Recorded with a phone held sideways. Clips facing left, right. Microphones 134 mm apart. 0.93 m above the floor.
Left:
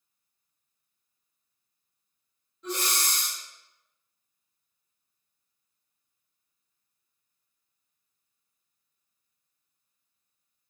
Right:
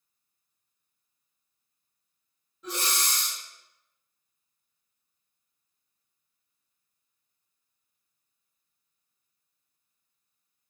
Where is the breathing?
5° right (ahead or behind), 1.6 m.